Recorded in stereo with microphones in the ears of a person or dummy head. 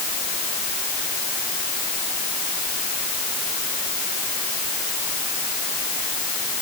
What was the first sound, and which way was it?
Only background noise.